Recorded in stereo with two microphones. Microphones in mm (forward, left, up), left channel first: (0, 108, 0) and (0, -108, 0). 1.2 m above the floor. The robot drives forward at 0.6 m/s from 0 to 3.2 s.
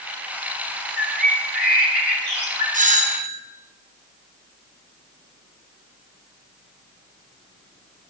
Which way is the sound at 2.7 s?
40° right (ahead or behind).